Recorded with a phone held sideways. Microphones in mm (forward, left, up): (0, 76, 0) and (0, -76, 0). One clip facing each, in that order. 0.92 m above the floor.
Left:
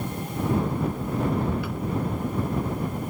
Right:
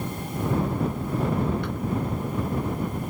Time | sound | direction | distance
1.6 | a drawer | 5° left (ahead or behind) | ?